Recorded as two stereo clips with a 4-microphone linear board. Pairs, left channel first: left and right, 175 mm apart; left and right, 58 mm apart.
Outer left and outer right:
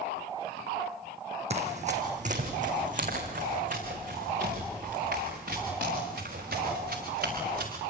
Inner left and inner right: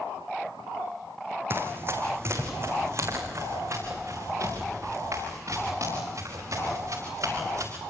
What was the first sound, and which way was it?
Running footsteps, 40° right (ahead or behind).